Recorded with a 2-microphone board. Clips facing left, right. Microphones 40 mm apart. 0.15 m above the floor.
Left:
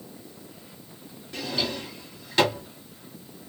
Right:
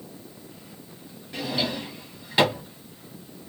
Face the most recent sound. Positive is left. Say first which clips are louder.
# right 2 dB
turn(degrees=-15)  # may be behind; listen again after turning